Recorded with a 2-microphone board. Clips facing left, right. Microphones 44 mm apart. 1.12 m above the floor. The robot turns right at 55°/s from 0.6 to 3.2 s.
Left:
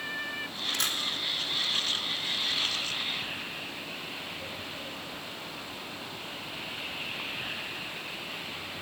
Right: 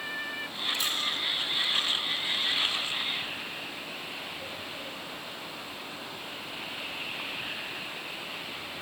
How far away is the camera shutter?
About 2.5 m.